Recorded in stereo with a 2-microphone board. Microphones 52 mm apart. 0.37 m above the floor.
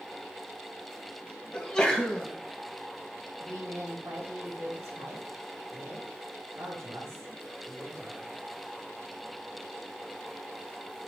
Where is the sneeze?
15° left (ahead or behind), 2.5 m.